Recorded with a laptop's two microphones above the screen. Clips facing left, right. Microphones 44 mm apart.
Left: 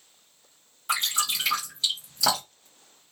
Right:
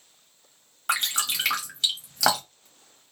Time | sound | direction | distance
0.9 | dripping | 70° right (ahead or behind) | 1.3 m